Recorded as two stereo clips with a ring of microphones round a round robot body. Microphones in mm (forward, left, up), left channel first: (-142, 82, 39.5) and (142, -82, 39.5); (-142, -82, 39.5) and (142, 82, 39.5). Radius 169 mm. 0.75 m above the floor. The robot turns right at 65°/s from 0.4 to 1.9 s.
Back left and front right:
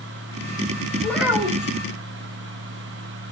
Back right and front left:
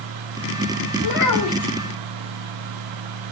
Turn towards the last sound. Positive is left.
turn(degrees=-75)